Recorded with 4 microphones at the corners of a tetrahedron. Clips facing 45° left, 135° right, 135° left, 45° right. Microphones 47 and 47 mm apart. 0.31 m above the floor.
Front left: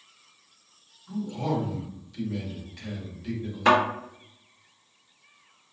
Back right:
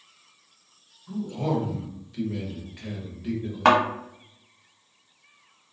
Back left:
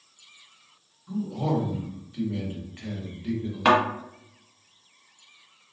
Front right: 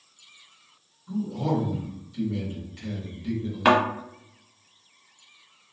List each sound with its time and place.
1.1 s a man speaking: 165° left, 1.1 m
3.6 s a thud: 135° right, 1.3 m